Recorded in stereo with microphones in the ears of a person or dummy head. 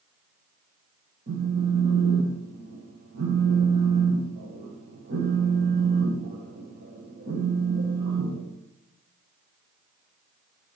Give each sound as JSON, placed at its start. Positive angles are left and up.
{"t": 1.3, "sound": "a phone buzzing", "side_deg": -45, "distance_m": 1.1}